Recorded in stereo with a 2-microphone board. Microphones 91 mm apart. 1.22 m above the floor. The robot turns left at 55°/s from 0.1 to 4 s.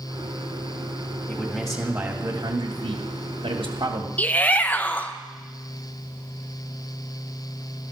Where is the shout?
15° left (ahead or behind), 0.9 m.